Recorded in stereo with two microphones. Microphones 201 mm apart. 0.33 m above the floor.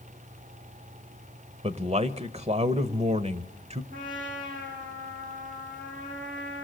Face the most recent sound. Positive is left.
turn(degrees=-40)  # may be behind; listen again after turning